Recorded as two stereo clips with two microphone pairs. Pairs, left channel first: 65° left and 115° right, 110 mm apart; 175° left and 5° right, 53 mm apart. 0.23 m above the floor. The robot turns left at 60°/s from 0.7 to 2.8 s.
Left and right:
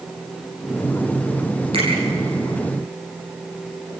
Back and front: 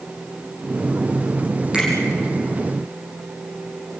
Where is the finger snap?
75° right, 7 m; by 1.9 s 85° right, 7 m.